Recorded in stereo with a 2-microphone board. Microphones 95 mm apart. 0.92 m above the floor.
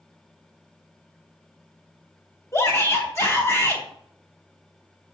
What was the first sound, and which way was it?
A shout, 25° left (ahead or behind).